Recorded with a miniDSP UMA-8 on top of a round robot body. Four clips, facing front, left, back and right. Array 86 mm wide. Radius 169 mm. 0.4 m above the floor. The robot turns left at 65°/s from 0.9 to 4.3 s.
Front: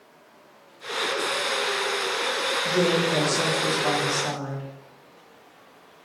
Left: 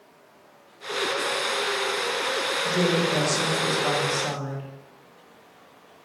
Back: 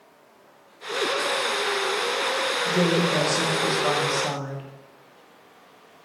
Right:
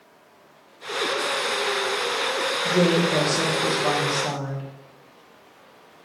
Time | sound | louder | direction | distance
2.6 | a woman speaking | right 4 dB, even | 70° right | 1.1 m